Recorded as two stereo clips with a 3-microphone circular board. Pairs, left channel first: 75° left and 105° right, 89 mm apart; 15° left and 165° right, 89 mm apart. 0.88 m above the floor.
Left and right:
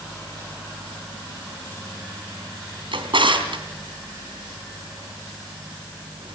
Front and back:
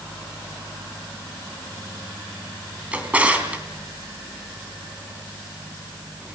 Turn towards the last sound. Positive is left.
turn(degrees=-90)